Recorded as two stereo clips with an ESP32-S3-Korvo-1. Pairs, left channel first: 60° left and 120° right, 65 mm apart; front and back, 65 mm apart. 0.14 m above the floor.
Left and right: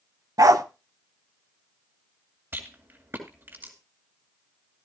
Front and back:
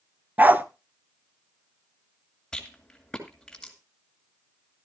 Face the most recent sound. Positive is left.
turn(degrees=-75)